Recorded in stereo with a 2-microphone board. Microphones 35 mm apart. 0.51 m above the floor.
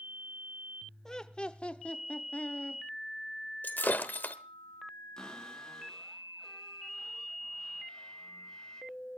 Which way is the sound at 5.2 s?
20° left (ahead or behind).